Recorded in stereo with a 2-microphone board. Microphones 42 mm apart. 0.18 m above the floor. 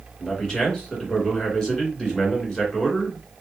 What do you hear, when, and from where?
0.2 s a man speaking: 15° left (ahead or behind), 1.9 m